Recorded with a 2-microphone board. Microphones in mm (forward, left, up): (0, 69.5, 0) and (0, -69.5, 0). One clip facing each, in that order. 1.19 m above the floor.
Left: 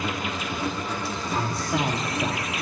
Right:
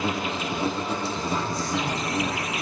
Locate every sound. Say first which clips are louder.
0.0 s an insect: right 2 dB; 30° right (ahead or behind), 0.8 m
1.3 s a man speaking: left 4 dB; 75° left (ahead or behind), 2 m